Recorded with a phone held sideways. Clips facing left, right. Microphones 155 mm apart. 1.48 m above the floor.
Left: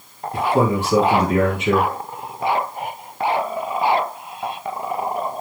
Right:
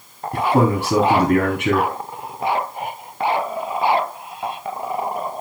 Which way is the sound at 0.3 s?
60° right (ahead or behind).